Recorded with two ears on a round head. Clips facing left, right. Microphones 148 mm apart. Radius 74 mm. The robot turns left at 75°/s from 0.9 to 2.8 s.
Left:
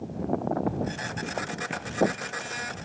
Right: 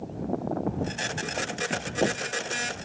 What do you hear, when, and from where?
1.7 s a thud: 45° right (ahead or behind); by 2.0 s 65° right (ahead or behind)